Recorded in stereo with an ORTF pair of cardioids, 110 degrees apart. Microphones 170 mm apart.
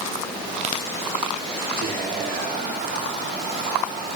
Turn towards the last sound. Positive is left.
turn(degrees=-65)